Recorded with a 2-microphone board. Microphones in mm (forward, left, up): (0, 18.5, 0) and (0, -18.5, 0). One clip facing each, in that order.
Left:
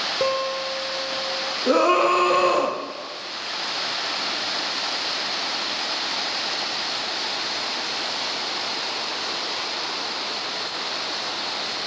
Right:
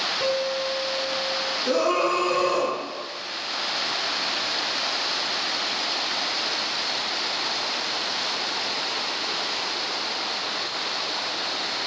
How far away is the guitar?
About 0.8 m.